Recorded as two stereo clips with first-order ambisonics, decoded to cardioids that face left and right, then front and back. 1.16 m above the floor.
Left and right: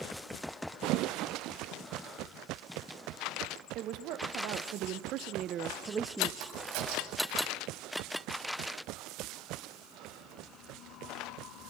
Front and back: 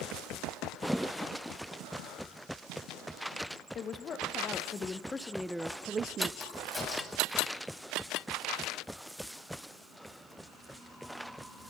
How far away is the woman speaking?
About 1.5 m.